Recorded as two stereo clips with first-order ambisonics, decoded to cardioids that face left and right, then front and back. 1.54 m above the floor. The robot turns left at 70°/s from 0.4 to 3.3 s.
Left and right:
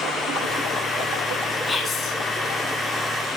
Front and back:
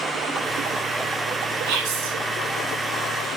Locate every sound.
1.7 s whispering: 175° left, 2 m; by 2.1 s 140° left, 2 m